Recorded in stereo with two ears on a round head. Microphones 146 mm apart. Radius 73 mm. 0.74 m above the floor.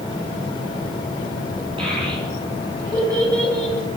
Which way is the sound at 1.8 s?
35° right (ahead or behind).